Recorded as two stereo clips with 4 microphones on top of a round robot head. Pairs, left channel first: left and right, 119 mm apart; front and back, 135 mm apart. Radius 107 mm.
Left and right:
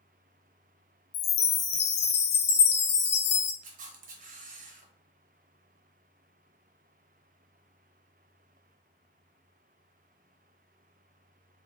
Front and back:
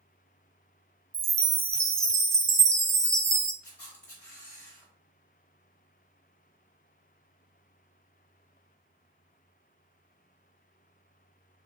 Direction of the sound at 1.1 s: 110° left.